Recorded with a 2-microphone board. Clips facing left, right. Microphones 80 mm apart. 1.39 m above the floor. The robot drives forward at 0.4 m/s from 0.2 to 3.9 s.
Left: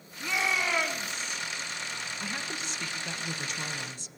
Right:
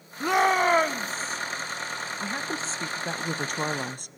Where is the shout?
55° right (ahead or behind), 0.7 m; by 1.4 s 35° right (ahead or behind), 1.1 m.